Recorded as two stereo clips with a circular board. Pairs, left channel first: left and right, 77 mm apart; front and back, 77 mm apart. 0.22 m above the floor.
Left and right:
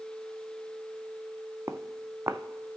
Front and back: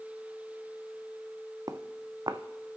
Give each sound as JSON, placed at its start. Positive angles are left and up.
{"t": 1.7, "sound": "footsteps", "azimuth_deg": -145, "distance_m": 0.6}